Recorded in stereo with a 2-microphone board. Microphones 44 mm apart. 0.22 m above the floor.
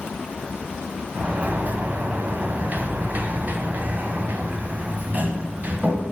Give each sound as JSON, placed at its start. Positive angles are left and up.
{"t": 1.1, "sound": "a sliding door", "side_deg": -40, "distance_m": 1.5}